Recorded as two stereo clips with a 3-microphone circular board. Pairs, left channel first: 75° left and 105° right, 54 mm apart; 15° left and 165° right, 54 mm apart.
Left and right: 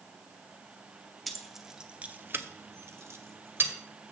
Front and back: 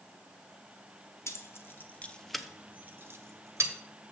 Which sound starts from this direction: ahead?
Keys jangling, at 1.3 s.